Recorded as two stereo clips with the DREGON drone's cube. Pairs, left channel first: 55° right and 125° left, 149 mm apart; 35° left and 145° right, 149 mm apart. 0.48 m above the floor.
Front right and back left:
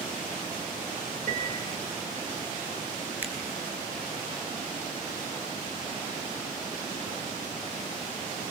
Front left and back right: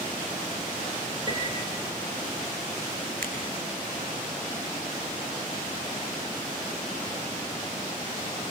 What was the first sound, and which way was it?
A piano, 155° left.